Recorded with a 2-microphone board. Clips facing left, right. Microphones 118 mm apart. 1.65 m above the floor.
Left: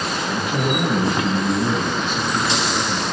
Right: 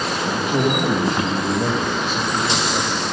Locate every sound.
0.3 s a man speaking: 35° right (ahead or behind), 2.5 m